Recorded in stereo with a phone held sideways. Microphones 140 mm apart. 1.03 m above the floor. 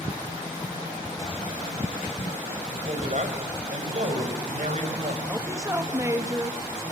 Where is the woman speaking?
20° right (ahead or behind), 1.8 m.